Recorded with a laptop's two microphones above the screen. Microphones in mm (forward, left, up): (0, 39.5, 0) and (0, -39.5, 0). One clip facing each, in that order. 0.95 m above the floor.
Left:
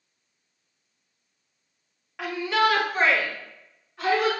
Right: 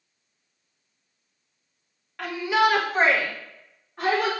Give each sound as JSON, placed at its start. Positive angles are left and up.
{"t": 2.2, "sound": "a shout", "side_deg": 5, "distance_m": 0.6}